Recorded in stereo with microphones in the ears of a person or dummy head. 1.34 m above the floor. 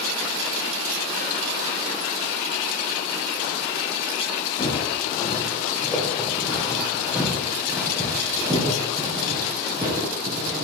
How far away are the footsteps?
About 2 m.